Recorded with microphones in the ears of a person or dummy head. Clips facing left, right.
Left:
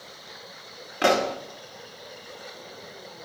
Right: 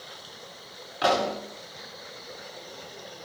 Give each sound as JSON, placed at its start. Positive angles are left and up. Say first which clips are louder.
{"t": 1.0, "sound": "a pop", "louder": "left 2 dB", "side_deg": 30, "distance_m": 1.8}